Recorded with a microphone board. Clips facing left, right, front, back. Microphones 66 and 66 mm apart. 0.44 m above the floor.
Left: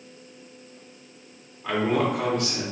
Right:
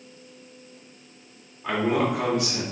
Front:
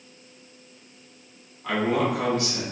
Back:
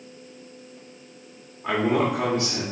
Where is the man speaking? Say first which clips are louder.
Even, back 1 dB; 165° right, 1.1 m.